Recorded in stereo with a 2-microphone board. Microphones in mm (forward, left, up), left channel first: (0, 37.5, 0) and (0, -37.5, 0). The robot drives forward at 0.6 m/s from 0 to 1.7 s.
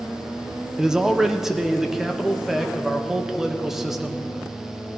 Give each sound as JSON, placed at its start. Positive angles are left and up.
{"t": 0.8, "sound": "a man speaking", "side_deg": -10, "distance_m": 0.7}